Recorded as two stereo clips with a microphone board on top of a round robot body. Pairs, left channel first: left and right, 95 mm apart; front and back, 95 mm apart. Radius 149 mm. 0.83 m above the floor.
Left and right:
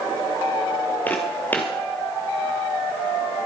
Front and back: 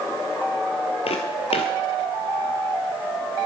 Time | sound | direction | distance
1.1 | footsteps | 20° left | 1.3 m